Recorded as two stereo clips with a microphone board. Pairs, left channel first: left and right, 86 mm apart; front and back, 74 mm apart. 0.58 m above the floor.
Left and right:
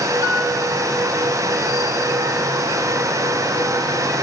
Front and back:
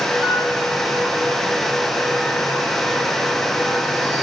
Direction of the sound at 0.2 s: 40° left.